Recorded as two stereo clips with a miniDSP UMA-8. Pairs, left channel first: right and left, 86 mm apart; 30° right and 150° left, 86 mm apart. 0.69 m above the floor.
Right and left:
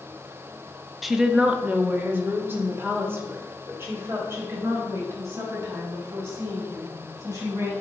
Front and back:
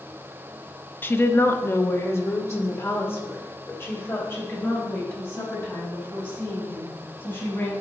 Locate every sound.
1.0 s a woman speaking: 5° left, 0.7 m; by 7.7 s 35° left, 5.5 m